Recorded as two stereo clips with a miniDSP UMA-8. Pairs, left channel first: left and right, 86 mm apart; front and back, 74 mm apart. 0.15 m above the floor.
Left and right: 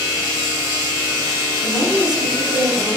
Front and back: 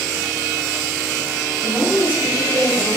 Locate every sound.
1.6 s a woman speaking: 165° right, 1.2 m